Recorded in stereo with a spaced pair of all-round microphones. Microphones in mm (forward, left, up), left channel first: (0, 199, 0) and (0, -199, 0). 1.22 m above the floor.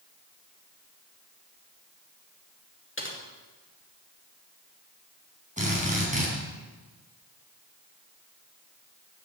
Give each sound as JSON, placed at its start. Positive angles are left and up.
{"t": 3.0, "sound": "typing on a keyboard", "side_deg": 30, "distance_m": 2.5}
{"t": 5.6, "sound": "a drill", "side_deg": -15, "distance_m": 4.0}